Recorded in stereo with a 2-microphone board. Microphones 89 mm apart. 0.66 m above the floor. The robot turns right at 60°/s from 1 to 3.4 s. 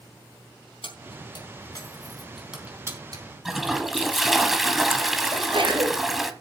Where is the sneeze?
65° right (ahead or behind), 3.5 m.